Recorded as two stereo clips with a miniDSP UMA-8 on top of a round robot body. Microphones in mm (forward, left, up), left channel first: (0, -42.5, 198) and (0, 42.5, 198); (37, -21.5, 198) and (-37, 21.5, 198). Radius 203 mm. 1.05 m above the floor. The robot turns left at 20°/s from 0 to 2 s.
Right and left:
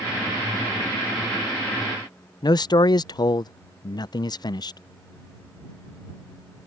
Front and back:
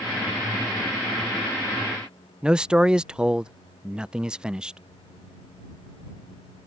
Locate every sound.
2.4 s a man speaking: 130° right